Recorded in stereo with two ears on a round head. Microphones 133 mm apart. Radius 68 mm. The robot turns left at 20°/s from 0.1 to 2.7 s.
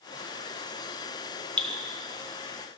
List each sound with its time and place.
1.6 s dripping: 10° left (ahead or behind), 1.3 m